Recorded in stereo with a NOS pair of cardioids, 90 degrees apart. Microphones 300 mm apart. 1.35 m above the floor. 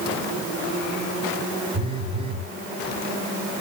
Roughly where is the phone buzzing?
Ahead.